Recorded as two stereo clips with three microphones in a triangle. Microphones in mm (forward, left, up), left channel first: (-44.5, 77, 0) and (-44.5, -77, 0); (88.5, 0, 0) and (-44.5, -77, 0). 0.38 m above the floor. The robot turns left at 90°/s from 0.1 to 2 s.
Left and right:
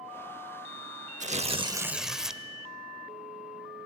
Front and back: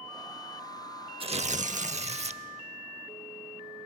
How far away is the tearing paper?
About 0.7 m.